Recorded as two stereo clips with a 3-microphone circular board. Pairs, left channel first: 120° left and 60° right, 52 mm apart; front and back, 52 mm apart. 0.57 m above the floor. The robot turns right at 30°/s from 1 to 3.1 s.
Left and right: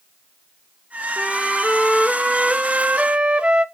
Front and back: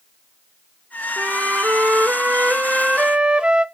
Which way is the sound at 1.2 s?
175° right.